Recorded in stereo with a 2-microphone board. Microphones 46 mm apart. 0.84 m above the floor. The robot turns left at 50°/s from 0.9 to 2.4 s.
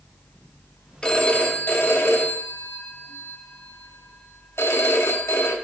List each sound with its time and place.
1.0 s a phone ringing: 160° left, 1.0 m; by 5.5 s 90° left, 1.0 m